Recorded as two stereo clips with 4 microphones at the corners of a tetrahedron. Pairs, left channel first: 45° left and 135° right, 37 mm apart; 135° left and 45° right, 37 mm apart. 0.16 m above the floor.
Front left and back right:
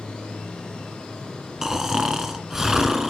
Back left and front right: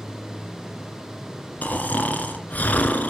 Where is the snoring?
150° left, 2 m.